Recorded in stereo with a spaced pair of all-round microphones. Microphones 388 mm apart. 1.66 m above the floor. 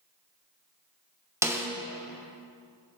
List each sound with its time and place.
1.4 s a snare drum: 5° right (ahead or behind), 0.7 m